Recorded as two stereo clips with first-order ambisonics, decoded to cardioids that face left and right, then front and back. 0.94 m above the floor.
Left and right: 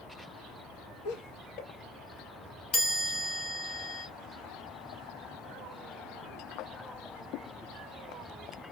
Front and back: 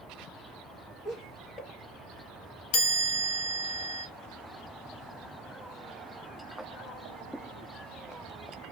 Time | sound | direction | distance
1.1 | laughter | 70° left | 0.8 m
2.7 | a chime | 15° left | 0.8 m